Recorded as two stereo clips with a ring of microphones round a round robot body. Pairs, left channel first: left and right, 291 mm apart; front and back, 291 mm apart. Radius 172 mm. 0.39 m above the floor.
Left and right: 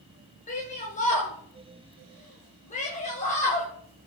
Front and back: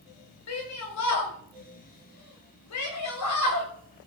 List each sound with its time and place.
0.5 s a shout: 25° left, 2 m